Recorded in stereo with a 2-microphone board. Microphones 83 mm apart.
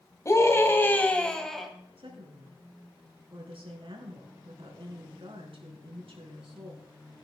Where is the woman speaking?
80° right, 3.5 m.